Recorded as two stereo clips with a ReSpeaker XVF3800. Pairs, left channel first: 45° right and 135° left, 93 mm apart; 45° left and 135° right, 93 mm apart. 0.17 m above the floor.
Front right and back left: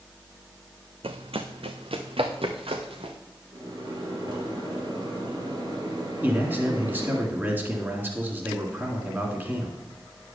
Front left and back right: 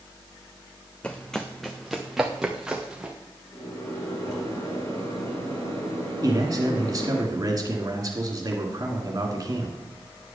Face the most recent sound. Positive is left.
turn(degrees=-165)